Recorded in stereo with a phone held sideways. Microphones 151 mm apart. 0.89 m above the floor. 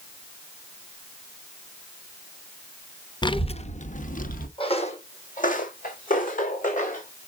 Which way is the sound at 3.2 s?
30° left (ahead or behind).